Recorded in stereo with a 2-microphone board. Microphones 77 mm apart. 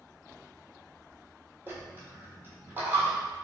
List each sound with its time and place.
1.7 s a dropped coin: 30° right (ahead or behind), 1.3 m